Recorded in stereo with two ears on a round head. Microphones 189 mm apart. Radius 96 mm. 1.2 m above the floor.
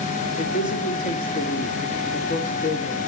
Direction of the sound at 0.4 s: 45° left (ahead or behind).